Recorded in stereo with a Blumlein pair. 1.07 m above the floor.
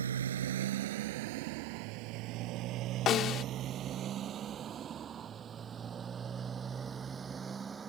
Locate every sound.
0.0 s a motorcycle: 70° right; by 7.9 s 15° right
3.1 s a snare drum: 30° left